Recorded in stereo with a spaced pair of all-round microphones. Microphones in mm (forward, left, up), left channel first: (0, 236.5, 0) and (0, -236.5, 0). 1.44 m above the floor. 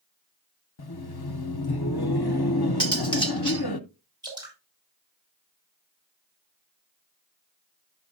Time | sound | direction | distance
0.8 | laughter | 55° left (ahead or behind) | 0.7 m
2.8 | cutlery clinking | 10° left (ahead or behind) | 1.5 m
4.2 | dripping | 10° right (ahead or behind) | 5 m